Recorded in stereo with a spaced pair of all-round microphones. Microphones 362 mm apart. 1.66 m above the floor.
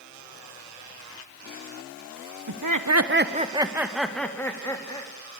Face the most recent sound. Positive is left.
turn(degrees=15)  # may be behind; listen again after turning